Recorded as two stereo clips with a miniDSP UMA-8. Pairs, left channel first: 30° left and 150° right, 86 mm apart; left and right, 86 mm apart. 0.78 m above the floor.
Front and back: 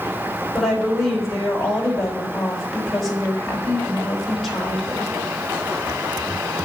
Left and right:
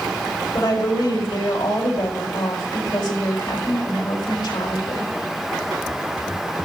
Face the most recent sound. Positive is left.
turn(degrees=120)